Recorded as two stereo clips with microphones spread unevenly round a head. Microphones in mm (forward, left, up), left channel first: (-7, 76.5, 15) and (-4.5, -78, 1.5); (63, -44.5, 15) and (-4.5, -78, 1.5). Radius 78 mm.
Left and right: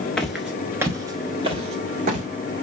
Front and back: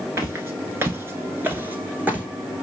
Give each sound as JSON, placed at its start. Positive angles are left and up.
{"t": 0.2, "sound": "footsteps", "azimuth_deg": 160, "distance_m": 1.0}